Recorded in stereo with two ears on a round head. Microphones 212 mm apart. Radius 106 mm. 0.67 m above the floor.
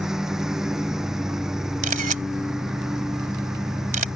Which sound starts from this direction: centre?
A lawn mower, at 0.0 s.